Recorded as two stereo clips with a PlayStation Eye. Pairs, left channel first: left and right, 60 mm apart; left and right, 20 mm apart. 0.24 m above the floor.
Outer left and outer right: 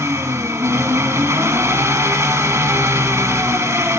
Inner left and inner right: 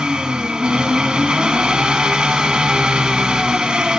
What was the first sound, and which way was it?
An engine running, 55° right (ahead or behind).